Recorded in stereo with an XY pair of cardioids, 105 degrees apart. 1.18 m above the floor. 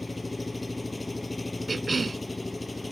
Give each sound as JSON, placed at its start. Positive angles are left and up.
{"t": 0.0, "sound": "an engine running", "azimuth_deg": 15}
{"t": 1.7, "sound": "a cough", "azimuth_deg": -25}